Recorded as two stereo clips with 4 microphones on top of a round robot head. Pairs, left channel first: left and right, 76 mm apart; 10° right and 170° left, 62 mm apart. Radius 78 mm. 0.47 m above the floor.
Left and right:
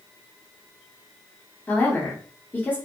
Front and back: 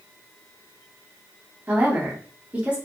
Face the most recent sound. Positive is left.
turn(degrees=125)